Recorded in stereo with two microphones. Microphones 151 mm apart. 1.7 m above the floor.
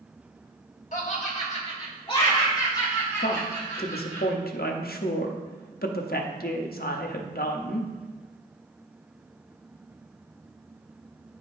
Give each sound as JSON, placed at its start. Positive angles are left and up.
{"t": 0.9, "sound": "laughter", "side_deg": 55, "distance_m": 2.0}
{"t": 3.2, "sound": "a woman speaking", "side_deg": 75, "distance_m": 0.8}